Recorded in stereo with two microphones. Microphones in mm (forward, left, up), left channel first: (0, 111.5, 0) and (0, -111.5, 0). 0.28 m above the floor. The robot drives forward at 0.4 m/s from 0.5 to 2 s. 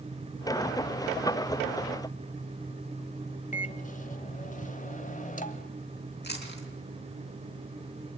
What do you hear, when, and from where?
3.5 s a microwave: 35° left (ahead or behind), 0.9 m
6.2 s chewing: 50° left (ahead or behind), 3.5 m